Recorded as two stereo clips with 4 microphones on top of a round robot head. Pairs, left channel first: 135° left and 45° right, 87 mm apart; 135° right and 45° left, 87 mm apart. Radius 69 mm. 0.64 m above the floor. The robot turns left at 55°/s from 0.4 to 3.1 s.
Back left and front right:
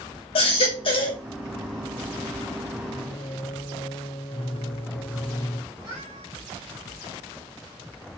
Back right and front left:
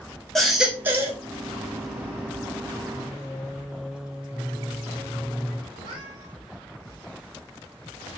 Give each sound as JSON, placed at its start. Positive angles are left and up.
{"t": 0.3, "sound": "a baby crying", "azimuth_deg": 135, "distance_m": 2.5}
{"t": 2.9, "sound": "singing", "azimuth_deg": 135, "distance_m": 1.9}
{"t": 5.7, "sound": "a cat meowing", "azimuth_deg": 5, "distance_m": 5.5}